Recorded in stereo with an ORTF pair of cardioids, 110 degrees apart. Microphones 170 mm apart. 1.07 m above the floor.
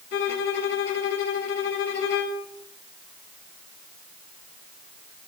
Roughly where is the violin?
Left.